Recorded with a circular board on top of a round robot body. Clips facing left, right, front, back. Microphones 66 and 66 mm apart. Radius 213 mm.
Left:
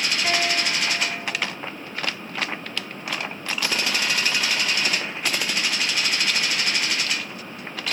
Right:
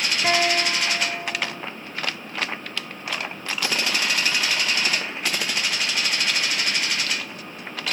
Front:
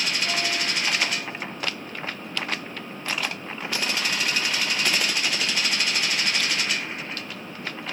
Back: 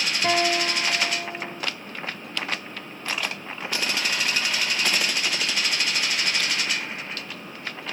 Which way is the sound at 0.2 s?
160° right.